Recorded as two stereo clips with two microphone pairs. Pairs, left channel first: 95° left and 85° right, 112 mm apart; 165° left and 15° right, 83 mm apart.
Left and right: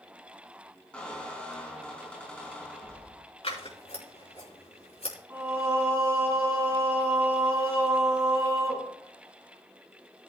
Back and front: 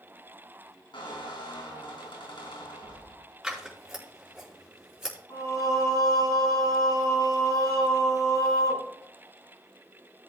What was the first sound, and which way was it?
A squeak, 175° left.